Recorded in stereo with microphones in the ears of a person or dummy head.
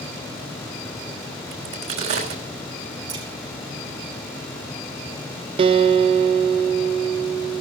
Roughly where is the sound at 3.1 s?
Right.